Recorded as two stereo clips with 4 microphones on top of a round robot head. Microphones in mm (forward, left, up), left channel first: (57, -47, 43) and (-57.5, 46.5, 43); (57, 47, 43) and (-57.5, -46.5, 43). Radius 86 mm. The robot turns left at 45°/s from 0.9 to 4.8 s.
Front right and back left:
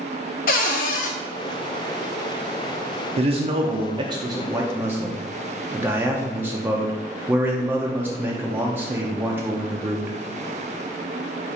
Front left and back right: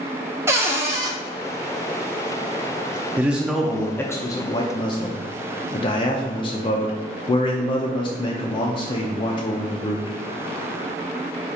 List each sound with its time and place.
0.5 s a cupboard door: 70° right, 0.6 m; by 1.1 s 80° right, 0.6 m
3.2 s a man speaking: 145° left, 0.5 m; by 10.2 s 70° left, 0.5 m